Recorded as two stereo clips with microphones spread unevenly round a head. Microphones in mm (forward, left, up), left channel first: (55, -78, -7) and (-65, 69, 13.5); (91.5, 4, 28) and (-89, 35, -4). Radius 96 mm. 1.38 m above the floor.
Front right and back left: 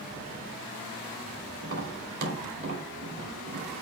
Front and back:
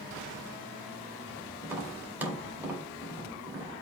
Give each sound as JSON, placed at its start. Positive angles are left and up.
{"t": 1.6, "sound": "tapping", "azimuth_deg": 85, "distance_m": 3.5}